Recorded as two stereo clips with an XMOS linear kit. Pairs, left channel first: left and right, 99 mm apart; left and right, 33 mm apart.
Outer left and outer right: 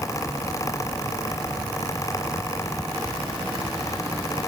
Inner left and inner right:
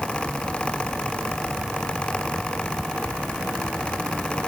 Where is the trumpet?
I don't hear a trumpet.